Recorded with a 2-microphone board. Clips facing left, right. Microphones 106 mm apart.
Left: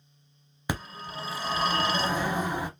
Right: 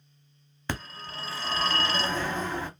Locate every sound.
0.7 s a phone ringing: 15° left (ahead or behind), 0.6 m